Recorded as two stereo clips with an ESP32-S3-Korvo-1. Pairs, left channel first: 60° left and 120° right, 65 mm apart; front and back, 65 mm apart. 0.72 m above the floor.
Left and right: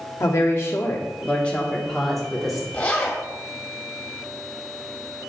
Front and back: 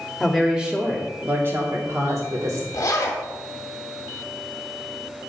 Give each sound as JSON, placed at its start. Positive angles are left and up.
{"t": 0.2, "sound": "a woman speaking", "azimuth_deg": 90, "distance_m": 1.4}
{"t": 2.7, "sound": "a zipper", "azimuth_deg": -5, "distance_m": 1.3}